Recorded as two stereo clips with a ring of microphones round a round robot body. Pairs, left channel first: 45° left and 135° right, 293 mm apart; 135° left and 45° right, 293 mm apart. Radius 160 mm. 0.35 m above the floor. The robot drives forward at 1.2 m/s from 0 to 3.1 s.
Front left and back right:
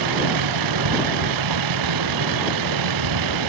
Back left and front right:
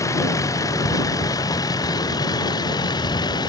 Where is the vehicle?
145° right; by 3.5 s 150° right.